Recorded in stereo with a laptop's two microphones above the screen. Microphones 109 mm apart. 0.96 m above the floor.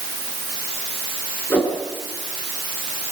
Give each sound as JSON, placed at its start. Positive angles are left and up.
{"t": 1.5, "sound": "a whoosh", "side_deg": 15, "distance_m": 6.0}